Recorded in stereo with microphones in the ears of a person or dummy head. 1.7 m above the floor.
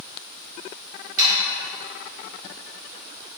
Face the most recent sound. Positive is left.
turn(degrees=-45)  # may be behind; listen again after turning